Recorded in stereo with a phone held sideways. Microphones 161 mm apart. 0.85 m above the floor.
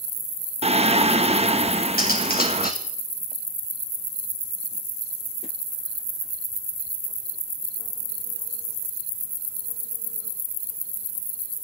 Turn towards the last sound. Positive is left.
turn(degrees=70)  # may be behind; listen again after turning